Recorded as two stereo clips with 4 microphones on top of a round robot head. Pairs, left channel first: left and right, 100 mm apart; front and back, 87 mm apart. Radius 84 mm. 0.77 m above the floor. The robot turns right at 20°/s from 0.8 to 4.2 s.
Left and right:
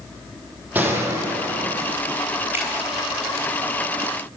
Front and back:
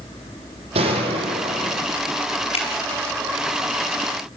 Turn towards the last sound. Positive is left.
turn(degrees=15)